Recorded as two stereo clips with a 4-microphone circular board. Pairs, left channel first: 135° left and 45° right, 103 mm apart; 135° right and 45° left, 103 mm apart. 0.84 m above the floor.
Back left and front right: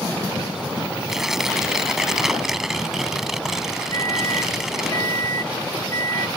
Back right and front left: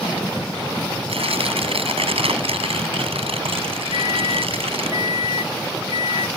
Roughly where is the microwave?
Left.